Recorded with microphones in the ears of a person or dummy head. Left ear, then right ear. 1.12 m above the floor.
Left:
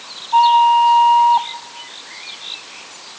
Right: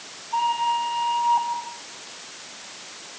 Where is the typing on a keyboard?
No typing on a keyboard in this recording.